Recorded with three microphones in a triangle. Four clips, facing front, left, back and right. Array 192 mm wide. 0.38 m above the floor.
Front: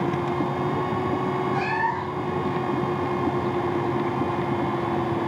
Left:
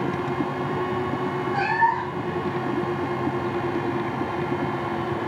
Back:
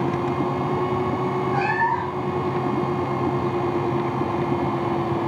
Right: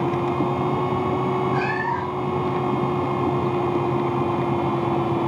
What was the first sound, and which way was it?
A cat meowing, 145° left.